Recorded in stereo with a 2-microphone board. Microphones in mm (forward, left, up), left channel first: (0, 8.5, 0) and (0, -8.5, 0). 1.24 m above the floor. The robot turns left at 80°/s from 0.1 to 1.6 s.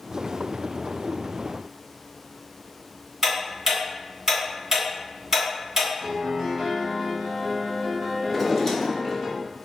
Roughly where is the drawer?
Centre.